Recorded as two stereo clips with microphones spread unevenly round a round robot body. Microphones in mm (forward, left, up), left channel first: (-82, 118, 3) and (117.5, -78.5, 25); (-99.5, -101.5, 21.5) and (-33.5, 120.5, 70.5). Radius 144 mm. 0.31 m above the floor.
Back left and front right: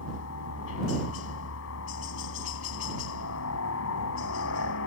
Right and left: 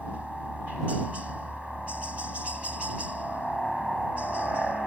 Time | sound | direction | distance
0.0 | a helicopter | 165° left | ?